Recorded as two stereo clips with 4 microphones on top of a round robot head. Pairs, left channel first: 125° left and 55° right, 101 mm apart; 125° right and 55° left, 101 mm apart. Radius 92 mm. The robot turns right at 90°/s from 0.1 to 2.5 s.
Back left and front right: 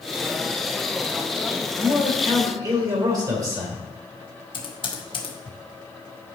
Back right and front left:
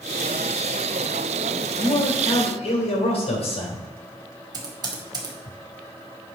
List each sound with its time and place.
1.8 s a man speaking: 175° right, 3.5 m; by 3.8 s 110° right, 3.5 m
4.5 s typing on a keyboard: 100° left, 2 m